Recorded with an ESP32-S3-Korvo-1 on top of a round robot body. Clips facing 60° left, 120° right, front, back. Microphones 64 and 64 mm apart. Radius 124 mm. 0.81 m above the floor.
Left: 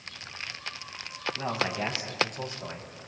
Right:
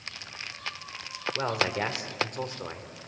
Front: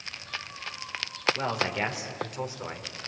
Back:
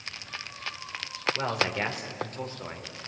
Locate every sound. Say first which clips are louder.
1.4 s a man speaking: right 3 dB, even; 95° right, 3.5 m; by 3.1 s 65° right, 3 m